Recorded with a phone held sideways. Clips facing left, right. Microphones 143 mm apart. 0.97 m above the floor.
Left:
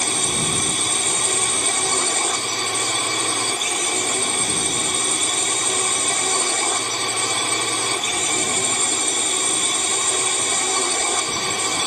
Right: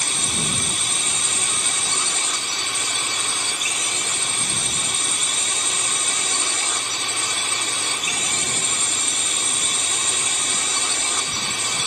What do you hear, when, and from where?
0.0 s a drone: 55° left (ahead or behind)